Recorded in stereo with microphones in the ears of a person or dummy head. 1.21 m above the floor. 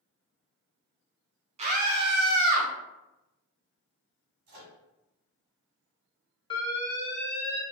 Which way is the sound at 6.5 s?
20° left (ahead or behind).